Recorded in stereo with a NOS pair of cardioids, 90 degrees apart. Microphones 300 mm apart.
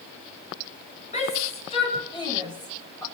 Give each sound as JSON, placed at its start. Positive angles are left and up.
{"t": 1.1, "sound": "a shout", "azimuth_deg": 20, "distance_m": 8.0}